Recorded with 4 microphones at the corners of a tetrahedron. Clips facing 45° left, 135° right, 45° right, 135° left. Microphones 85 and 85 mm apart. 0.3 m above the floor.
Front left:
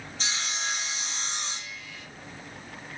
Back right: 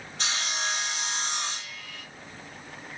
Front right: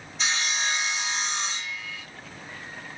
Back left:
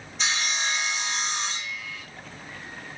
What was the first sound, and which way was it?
Sawing, 130° right.